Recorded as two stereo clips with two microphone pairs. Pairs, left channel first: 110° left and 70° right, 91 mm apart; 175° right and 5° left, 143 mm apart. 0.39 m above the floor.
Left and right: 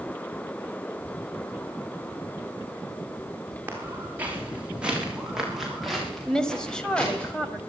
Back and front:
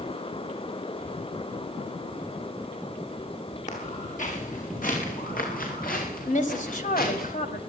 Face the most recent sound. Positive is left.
turn(degrees=-170)